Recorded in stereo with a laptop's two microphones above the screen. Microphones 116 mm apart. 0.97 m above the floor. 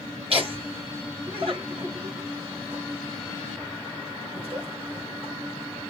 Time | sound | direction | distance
0.3 | laughter | 60° right (ahead or behind) | 2.0 m